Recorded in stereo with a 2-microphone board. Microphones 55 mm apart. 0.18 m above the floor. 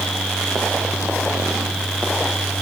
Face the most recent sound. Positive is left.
No sound to turn to.